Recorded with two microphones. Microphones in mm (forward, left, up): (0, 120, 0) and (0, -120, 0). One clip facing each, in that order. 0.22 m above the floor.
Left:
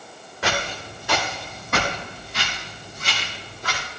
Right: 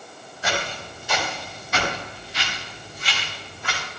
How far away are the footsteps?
About 4.5 m.